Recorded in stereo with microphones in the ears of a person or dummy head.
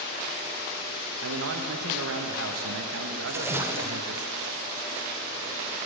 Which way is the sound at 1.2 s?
85° right.